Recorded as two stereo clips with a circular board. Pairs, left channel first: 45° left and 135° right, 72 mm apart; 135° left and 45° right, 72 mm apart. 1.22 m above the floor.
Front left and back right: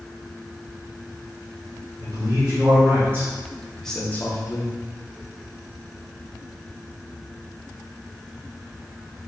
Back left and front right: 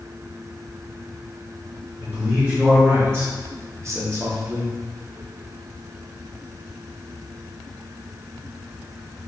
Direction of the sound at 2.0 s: 110° right.